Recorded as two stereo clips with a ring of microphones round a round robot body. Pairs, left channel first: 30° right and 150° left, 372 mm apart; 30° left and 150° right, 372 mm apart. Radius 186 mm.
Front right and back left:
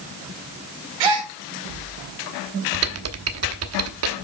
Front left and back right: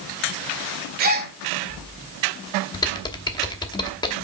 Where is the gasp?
145° left, 1.7 m.